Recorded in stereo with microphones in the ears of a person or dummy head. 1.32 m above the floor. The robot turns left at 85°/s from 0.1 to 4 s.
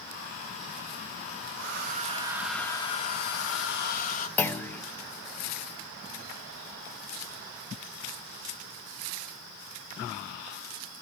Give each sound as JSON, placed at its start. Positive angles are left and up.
{"t": 1.6, "sound": "a hair dryer", "azimuth_deg": -95, "distance_m": 1.1}
{"t": 4.4, "sound": "a clunk", "side_deg": 20, "distance_m": 0.6}